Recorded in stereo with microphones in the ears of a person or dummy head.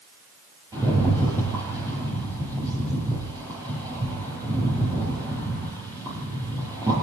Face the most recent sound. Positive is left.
turn(degrees=-20)  # may be behind; listen again after turning